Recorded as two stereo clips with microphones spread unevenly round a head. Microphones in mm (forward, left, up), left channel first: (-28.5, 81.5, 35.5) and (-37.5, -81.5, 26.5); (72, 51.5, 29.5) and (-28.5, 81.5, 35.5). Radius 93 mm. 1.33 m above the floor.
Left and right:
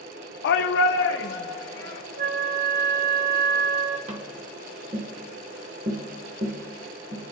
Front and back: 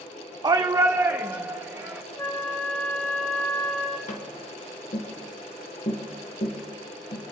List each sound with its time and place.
0.4 s a shout: 110° left, 0.6 m; by 2.0 s 90° left, 1.7 m
2.2 s a flute: 95° right, 1.0 m
4.1 s tapping: 35° right, 1.6 m